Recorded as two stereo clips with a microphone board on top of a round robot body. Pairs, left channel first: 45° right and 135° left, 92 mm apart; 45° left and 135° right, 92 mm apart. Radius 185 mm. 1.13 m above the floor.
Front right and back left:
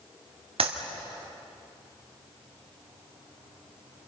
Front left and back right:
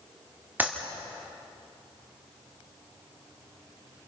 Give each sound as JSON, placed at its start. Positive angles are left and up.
{"t": 0.6, "sound": "a clap", "azimuth_deg": 150, "distance_m": 2.0}